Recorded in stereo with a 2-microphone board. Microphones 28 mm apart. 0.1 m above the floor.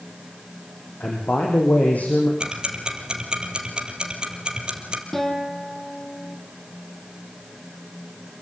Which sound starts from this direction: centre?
A guitar, at 5.1 s.